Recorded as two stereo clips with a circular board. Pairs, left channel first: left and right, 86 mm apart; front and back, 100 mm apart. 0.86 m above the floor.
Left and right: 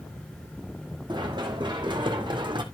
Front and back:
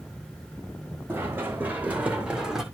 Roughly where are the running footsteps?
Right.